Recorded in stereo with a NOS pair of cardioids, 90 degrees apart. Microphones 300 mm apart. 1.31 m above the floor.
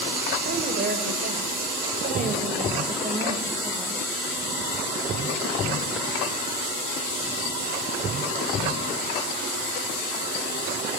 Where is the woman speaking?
35° right, 7 m; by 4.1 s 20° right, 8.5 m.